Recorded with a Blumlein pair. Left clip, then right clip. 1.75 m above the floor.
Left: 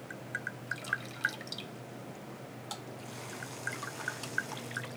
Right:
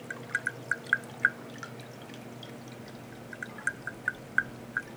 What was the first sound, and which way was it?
Tapping, 70° right.